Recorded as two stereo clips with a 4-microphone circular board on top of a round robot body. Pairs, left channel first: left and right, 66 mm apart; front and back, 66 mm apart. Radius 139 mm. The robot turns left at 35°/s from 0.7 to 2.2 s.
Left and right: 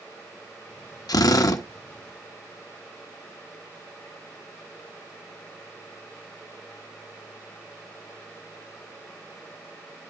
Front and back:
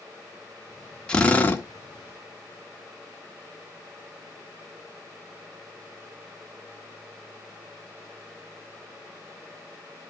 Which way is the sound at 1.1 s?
75° left.